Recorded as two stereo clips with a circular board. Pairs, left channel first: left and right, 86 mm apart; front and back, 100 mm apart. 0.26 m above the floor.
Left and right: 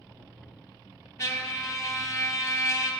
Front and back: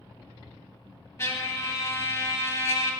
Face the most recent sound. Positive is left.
turn(degrees=50)